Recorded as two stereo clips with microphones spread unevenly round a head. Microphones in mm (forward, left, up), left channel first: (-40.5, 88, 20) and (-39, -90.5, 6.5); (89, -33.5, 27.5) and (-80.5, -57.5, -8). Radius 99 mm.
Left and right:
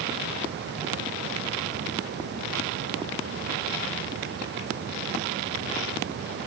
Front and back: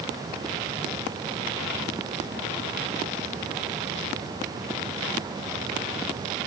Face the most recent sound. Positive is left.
No sound to turn to.